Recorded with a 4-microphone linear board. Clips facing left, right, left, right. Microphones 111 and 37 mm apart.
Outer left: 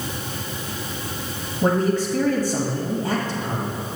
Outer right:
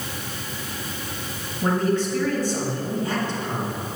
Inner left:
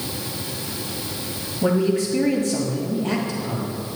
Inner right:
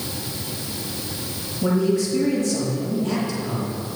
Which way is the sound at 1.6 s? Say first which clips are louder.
Outer left 2 dB, even; 45° left (ahead or behind).